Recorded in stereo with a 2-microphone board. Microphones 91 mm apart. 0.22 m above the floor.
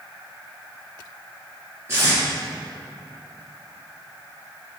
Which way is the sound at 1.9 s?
30° right (ahead or behind).